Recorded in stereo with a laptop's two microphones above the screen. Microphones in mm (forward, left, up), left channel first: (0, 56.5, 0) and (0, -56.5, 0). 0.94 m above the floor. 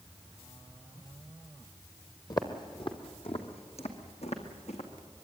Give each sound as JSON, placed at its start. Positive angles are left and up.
{"t": 2.3, "sound": "footsteps", "side_deg": 35, "distance_m": 1.6}